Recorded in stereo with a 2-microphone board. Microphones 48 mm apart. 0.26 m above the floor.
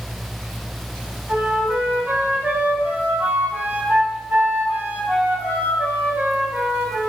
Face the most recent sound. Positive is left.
turn(degrees=-40)  # may be behind; listen again after turning